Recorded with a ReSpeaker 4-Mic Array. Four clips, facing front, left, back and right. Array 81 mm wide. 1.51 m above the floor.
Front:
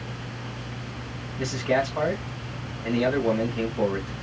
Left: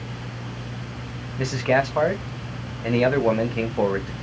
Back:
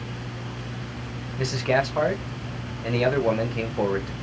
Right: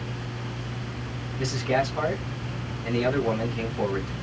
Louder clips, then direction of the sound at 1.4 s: Left 4 dB, back 1 dB; 110° left.